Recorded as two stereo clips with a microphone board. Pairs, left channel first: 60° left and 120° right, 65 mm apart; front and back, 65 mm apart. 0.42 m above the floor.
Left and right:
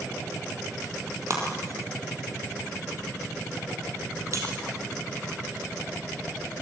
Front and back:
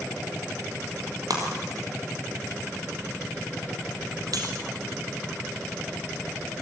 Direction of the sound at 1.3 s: 160° right.